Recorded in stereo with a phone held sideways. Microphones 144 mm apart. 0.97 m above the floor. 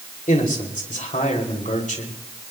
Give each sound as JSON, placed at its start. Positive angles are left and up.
{"t": 0.3, "sound": "a man speaking", "side_deg": 60, "distance_m": 3.0}